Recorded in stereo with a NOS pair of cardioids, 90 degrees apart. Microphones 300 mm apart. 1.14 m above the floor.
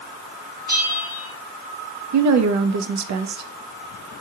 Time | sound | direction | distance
0.7 | a bell | 30° right | 1.2 m
2.1 | a woman speaking | 65° right | 0.7 m